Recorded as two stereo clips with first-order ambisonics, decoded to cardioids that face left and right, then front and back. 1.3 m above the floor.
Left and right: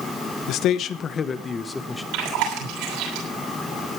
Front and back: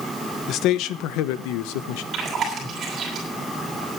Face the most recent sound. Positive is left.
turn(degrees=-115)